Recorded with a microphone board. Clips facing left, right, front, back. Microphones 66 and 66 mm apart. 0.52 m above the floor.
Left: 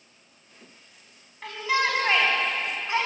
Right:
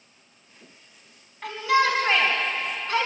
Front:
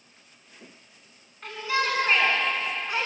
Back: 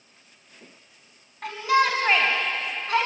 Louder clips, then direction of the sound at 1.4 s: Right 4 dB, back 6 dB; straight behind.